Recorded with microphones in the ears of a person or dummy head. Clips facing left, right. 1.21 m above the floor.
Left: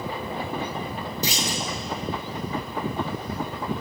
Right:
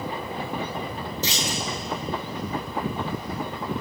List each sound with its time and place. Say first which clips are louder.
1.2 s a clunk: left 1 dB; 20° left (ahead or behind), 2.5 m